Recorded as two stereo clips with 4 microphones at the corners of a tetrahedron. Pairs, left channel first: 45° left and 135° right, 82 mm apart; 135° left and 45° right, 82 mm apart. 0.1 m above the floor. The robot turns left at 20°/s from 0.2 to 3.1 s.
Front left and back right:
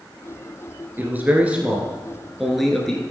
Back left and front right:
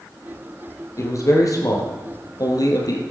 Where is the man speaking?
165° left, 2 m; by 3.0 s 125° left, 2 m.